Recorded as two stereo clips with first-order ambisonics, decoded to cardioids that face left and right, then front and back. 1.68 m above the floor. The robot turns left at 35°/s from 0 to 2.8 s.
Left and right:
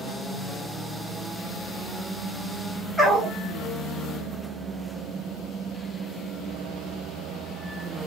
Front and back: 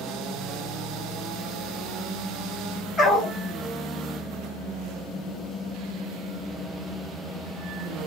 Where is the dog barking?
5° left, 1.2 m.